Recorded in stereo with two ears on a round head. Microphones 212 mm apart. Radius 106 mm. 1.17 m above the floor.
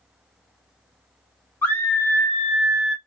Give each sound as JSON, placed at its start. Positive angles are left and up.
{"t": 1.6, "sound": "a scream", "side_deg": 10, "distance_m": 1.4}